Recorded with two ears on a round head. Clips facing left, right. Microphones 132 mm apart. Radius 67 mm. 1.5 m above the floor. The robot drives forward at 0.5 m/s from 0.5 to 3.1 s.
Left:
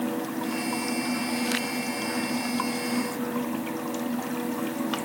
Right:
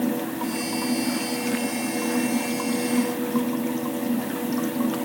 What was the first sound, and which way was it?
Only background noise.